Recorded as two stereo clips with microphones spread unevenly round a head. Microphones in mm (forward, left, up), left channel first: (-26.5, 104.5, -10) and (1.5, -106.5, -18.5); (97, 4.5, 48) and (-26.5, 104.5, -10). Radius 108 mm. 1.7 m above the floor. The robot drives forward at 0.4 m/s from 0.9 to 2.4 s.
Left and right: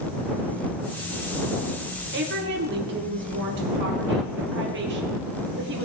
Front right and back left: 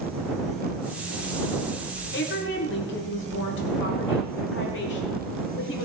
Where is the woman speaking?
35° right, 2 m; by 5.8 s 40° right, 2.0 m.